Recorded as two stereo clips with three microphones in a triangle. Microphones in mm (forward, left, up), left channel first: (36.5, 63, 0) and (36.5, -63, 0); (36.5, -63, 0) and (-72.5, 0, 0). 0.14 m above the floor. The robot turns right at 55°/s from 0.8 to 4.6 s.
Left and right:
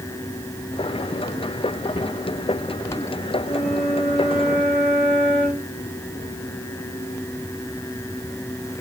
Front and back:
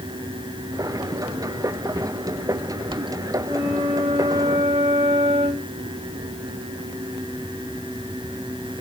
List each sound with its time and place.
3.5 s a flute: 105° left, 7 m; by 5.7 s 170° left, 7 m